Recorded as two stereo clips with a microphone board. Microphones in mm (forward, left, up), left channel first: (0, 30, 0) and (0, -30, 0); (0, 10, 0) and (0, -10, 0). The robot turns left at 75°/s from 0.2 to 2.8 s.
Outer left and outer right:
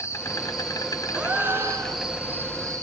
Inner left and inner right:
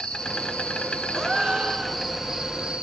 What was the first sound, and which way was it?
An insect, 135° left.